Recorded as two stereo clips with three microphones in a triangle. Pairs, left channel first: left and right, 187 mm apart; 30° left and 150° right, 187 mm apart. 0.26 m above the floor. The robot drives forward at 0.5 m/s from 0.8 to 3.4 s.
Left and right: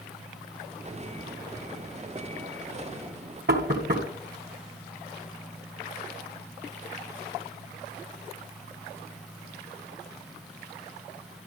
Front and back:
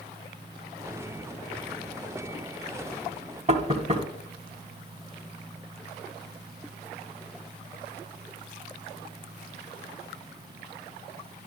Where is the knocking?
100° right, 1.7 m.